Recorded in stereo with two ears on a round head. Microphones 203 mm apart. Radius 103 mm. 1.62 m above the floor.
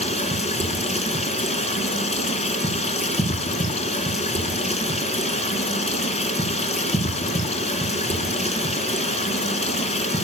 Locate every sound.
0.0 s running water: 30° left (ahead or behind), 2.5 m